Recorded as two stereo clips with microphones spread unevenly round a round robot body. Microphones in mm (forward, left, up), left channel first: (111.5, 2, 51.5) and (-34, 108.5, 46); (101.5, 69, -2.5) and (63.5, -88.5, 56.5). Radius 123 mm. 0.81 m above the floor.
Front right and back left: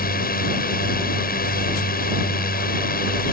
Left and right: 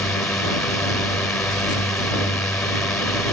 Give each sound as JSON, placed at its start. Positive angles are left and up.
{"t": 0.0, "sound": "a drone", "azimuth_deg": -5}